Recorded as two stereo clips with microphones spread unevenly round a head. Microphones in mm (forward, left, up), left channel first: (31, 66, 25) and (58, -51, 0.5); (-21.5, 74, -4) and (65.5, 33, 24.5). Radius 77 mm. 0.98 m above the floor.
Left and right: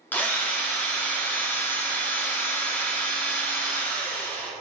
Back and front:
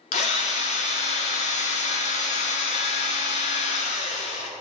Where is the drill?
175° right, 1.3 m.